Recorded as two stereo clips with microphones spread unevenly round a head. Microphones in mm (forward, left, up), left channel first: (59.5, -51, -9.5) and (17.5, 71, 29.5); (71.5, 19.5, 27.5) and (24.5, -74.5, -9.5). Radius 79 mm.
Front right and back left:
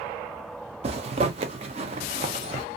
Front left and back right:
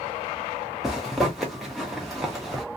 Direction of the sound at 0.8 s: 165° left.